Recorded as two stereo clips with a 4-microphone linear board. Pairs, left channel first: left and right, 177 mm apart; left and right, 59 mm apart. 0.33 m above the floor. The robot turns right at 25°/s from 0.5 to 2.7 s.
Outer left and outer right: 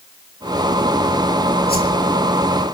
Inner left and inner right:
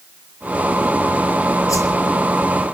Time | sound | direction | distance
1.7 | a whoosh | 70° left (ahead or behind) | 6.5 m